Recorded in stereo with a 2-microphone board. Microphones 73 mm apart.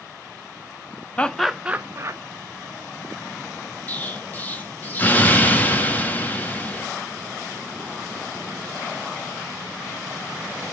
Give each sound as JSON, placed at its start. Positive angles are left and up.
{"t": 1.2, "sound": "laughter", "side_deg": 20, "distance_m": 0.6}
{"t": 3.9, "sound": "an explosion", "side_deg": 25, "distance_m": 1.2}